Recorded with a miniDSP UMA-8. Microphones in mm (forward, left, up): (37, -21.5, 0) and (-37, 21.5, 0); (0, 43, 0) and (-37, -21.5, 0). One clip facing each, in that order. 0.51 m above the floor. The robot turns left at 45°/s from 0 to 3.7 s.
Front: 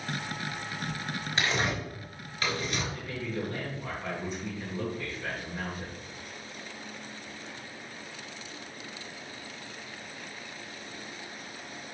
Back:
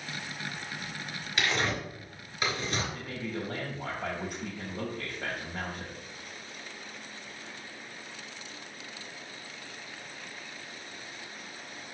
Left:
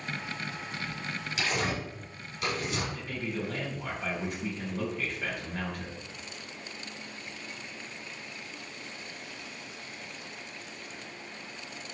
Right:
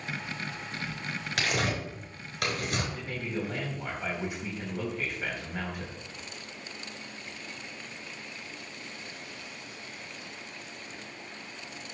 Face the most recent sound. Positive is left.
turn(degrees=155)